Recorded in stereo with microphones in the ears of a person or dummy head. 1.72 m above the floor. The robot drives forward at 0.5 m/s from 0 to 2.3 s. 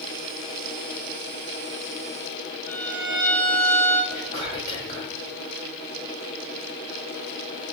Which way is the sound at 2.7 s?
25° right (ahead or behind).